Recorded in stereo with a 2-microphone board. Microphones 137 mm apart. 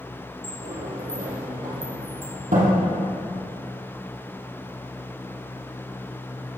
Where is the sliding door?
80° right, 2.5 m.